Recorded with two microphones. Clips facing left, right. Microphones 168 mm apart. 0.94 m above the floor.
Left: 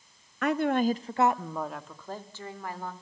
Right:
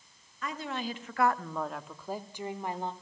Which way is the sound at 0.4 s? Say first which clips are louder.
Left 11 dB; 65° left (ahead or behind).